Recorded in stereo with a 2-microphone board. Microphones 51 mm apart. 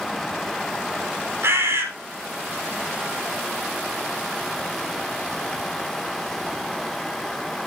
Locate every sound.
1.4 s a bird: 60° right (ahead or behind), 2.5 m